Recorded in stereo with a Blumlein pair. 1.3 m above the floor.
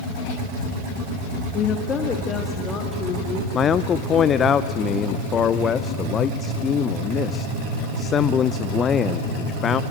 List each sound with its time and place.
1.5 s a woman speaking: 25° left, 1.5 m; by 3.4 s 15° left, 3 m
3.5 s a man speaking: 25° left, 0.6 m